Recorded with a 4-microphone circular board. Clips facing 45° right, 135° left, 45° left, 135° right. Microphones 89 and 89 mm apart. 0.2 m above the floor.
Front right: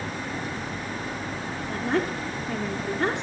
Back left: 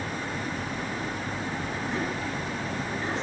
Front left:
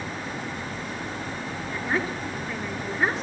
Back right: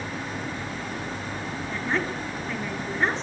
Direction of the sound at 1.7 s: 45° right.